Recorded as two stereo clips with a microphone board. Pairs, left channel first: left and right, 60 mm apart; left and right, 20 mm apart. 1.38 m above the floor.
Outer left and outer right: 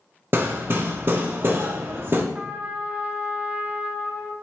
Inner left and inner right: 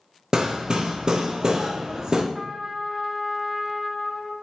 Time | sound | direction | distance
0.3 | hammering | 35° right (ahead or behind) | 1.1 m
2.3 | a trumpet | 25° right (ahead or behind) | 1.1 m